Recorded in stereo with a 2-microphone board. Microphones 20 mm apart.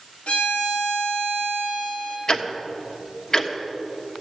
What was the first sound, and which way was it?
A violin, 80° left.